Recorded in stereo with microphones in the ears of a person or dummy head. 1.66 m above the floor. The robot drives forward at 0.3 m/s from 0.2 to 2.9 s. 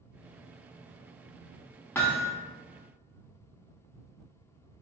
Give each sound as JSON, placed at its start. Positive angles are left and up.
{"t": 1.9, "sound": "hammering", "side_deg": 10, "distance_m": 0.6}